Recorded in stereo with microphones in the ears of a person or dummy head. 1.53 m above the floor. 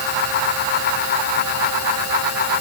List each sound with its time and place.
Only background noise.